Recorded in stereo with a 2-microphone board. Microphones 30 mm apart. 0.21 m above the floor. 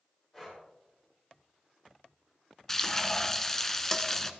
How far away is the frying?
About 0.9 m.